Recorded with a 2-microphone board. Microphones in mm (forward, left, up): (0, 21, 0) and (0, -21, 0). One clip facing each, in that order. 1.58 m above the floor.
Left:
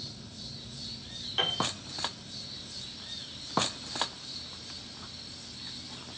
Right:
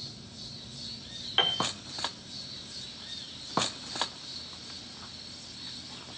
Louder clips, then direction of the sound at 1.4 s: Right 2 dB; 35° right (ahead or behind).